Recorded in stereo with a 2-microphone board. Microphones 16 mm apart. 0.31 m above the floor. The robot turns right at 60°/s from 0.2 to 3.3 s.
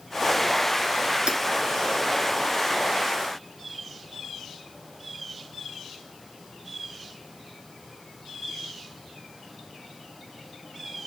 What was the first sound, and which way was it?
Hammering, 65° right (ahead or behind).